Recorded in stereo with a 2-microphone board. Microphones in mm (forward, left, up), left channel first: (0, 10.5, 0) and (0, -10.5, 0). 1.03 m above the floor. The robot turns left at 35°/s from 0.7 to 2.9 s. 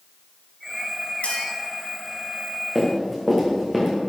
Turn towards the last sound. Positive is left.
turn(degrees=-5)  # may be behind; listen again after turning